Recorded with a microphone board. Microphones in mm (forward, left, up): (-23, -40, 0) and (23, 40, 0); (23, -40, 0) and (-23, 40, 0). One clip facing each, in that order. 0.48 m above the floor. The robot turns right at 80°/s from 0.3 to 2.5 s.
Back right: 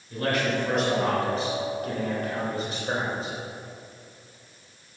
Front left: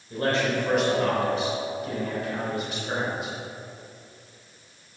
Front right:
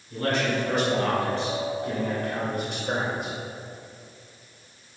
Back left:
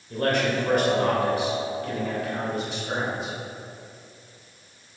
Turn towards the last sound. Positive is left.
turn(degrees=-75)